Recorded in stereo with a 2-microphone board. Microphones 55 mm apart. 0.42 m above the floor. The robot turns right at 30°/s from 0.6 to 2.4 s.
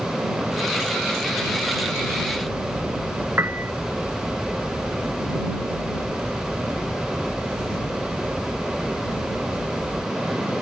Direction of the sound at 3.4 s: 45° right (ahead or behind).